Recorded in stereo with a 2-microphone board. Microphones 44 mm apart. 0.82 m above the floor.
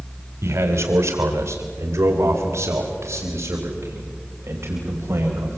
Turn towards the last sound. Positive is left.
turn(degrees=-65)  # may be behind; listen again after turning